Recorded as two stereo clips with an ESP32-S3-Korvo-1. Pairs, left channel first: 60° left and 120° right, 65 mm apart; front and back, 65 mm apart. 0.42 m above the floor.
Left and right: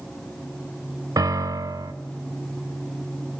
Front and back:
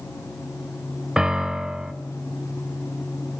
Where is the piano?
100° right, 0.7 m.